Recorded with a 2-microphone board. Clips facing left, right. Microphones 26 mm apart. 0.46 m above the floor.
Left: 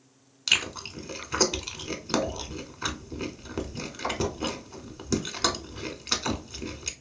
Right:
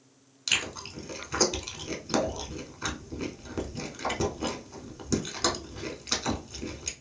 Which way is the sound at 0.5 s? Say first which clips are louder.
Left 3 dB; 20° left (ahead or behind).